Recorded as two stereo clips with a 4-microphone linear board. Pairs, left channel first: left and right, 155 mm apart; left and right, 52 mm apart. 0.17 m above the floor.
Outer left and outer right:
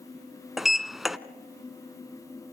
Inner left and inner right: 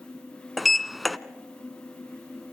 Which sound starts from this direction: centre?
A sliding door, at 0.6 s.